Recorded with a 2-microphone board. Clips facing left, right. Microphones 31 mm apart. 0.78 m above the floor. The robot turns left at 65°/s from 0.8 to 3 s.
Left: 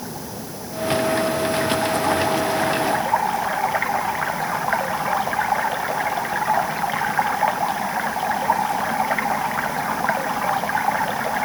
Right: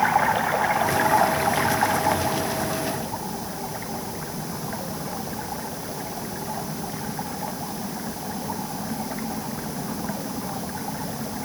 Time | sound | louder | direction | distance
0.0 | running water | right 13 dB | 90° right | ?